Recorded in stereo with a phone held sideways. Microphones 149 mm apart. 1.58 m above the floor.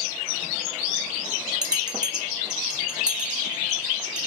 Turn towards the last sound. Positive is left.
turn(degrees=-5)  # may be behind; listen again after turning